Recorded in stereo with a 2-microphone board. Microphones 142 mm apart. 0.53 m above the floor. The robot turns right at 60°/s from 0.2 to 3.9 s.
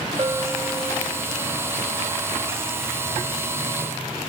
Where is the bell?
45° right, 1.1 m; by 1.1 s 5° left, 1.1 m.